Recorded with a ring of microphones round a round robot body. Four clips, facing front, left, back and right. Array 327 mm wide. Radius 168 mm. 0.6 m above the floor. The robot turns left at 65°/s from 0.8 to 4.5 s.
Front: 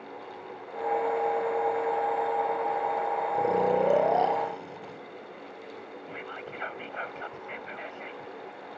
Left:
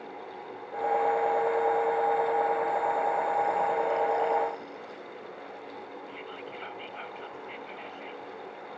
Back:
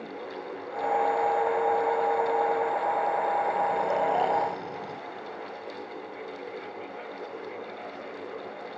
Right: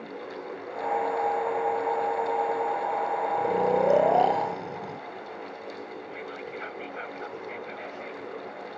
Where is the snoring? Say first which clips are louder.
Right 2 dB, front 1 dB; 25° right; by 5.0 s 100° right.